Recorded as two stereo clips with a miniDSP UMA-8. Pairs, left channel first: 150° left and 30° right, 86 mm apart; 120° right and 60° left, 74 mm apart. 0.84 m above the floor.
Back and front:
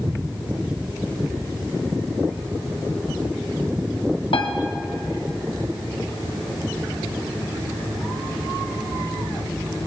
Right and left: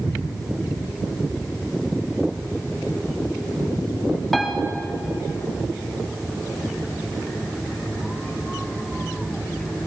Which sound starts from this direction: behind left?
A piano, at 4.3 s.